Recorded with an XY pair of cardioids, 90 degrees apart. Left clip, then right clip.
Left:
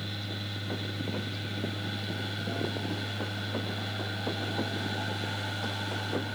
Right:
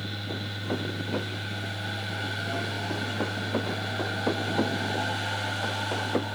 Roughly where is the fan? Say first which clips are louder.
Right 3 dB; ahead.